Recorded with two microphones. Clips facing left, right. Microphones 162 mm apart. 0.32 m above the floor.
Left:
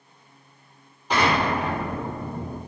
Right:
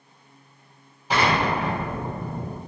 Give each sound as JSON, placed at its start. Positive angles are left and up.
{"t": 1.1, "sound": "an explosion", "side_deg": -10, "distance_m": 1.5}